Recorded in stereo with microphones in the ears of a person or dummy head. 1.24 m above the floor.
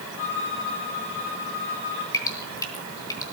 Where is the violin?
55° left (ahead or behind), 6.5 m.